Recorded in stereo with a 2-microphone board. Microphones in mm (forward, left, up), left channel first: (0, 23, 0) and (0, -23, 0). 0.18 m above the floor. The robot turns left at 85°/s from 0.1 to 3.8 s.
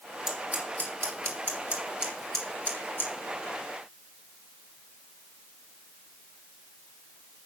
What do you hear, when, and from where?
0.3 s scissors: 10° right (ahead or behind), 3 m; by 3.1 s 65° left (ahead or behind), 3 m